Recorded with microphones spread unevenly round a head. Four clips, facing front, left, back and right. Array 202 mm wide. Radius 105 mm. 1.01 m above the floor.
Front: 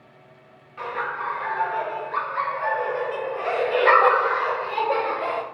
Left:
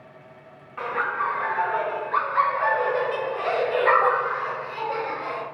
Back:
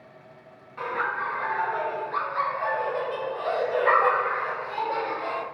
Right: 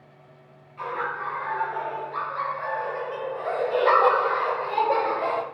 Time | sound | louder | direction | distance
0.8 | laughter | left 4 dB, even | 105° left | 1.7 m